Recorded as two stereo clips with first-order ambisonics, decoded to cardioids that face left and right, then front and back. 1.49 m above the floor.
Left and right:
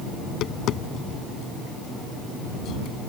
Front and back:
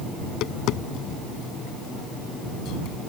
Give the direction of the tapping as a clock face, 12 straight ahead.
11 o'clock.